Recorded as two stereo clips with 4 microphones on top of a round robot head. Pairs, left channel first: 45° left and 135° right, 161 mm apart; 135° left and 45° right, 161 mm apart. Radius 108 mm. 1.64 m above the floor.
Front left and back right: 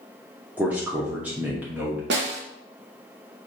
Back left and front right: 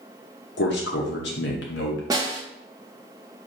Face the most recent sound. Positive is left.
turn(degrees=-115)